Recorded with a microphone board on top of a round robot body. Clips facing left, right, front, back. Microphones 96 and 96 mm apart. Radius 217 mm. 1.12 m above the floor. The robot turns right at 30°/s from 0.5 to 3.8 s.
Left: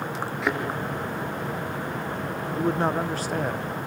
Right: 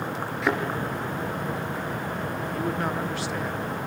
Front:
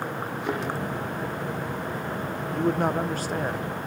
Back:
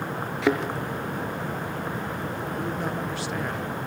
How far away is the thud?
About 3.5 m.